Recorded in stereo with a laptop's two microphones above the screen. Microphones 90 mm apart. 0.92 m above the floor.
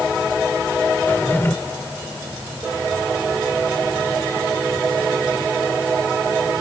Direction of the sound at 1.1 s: 25° left (ahead or behind).